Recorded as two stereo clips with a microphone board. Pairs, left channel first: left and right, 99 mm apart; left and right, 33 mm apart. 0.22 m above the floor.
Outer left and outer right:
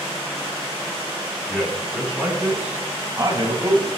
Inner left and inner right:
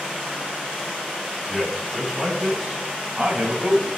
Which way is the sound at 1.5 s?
Centre (ahead or behind).